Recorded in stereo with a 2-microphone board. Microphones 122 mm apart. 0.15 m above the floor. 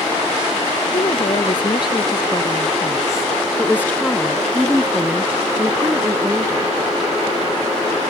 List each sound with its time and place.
0.9 s a woman speaking: 45° left (ahead or behind); by 6.7 s 35° right (ahead or behind)